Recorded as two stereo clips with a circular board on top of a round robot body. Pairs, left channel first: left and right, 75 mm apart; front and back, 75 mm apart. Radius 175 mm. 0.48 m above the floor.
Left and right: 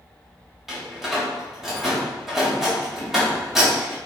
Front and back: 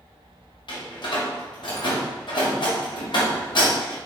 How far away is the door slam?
About 2.5 m.